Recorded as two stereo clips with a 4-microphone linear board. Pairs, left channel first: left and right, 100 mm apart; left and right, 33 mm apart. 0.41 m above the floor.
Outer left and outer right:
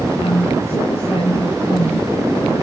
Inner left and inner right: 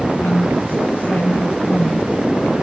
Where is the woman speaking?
75° left (ahead or behind), 10 m.